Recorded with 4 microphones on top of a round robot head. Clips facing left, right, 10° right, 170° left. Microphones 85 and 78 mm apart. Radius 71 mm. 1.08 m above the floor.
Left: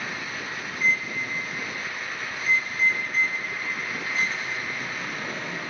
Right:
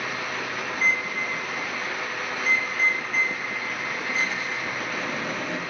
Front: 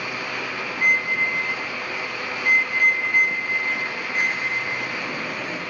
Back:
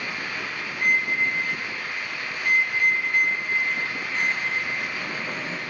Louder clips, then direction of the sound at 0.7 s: Even, front 2 dB; 80° right.